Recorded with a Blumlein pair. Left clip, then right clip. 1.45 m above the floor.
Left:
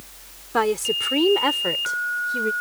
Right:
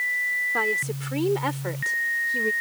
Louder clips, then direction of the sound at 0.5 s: Left 3 dB; 25° left.